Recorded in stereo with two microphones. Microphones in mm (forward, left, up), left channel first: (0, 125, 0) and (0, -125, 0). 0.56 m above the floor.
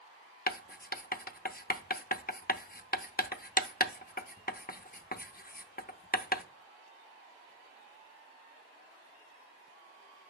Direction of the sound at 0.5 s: 35° left (ahead or behind).